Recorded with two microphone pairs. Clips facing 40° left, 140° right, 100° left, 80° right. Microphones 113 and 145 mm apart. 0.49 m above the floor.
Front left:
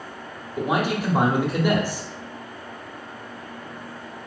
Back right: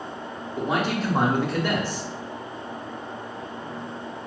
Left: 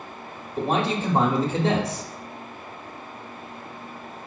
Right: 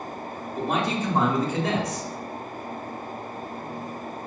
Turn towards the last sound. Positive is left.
turn(degrees=100)